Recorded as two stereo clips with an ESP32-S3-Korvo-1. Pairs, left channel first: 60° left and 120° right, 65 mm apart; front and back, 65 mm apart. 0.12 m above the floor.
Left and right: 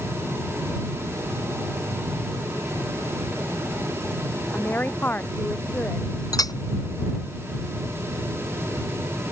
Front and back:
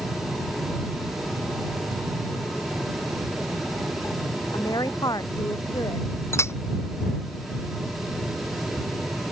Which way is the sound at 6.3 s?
45° left.